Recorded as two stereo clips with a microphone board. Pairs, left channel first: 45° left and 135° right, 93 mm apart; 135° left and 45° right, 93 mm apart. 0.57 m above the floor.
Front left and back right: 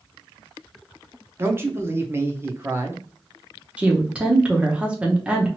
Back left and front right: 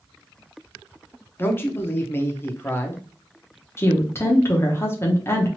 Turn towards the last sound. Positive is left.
turn(degrees=160)